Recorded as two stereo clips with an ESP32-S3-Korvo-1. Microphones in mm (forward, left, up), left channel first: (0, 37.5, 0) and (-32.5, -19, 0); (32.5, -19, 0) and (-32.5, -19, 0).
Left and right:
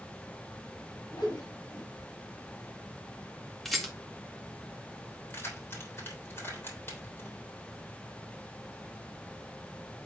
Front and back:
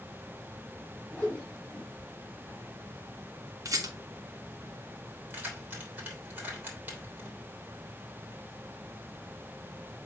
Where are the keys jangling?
115° left, 3.5 m.